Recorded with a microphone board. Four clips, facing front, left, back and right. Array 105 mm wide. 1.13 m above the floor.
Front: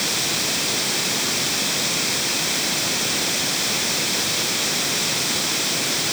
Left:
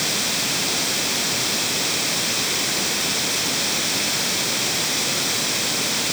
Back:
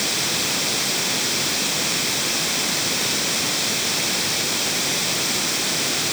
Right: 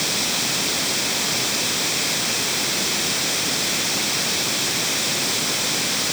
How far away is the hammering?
I don't hear hammering.